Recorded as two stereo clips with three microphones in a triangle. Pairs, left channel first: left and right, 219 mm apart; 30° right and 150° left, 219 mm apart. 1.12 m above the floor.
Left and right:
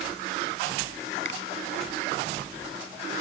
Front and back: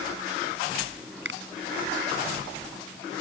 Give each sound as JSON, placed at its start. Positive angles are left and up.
{"t": 1.2, "sound": "a finger snap", "azimuth_deg": 120}